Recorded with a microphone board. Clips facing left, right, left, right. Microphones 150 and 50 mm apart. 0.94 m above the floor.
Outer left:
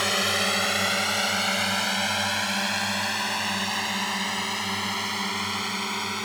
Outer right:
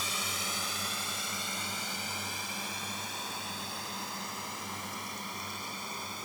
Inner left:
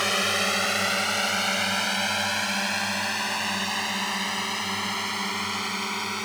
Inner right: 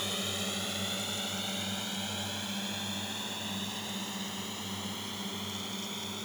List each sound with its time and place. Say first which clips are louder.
0.0 s a drone: outer left 13 dB, inner left 12 dB; 70° left (ahead or behind); by 6.3 s 75° left (ahead or behind)